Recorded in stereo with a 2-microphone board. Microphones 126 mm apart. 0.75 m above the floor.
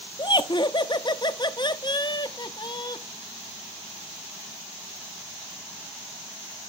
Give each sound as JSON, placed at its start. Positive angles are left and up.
{"t": 0.2, "sound": "laughter", "side_deg": 40, "distance_m": 0.5}